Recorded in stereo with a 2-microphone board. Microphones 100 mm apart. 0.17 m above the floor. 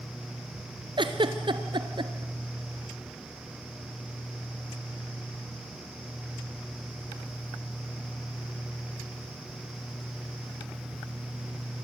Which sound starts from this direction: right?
A giggle, at 1.0 s.